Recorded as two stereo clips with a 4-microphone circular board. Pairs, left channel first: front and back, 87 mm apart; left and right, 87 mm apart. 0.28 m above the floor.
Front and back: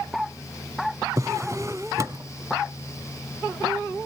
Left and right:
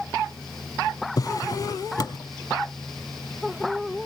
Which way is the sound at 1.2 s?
130° left.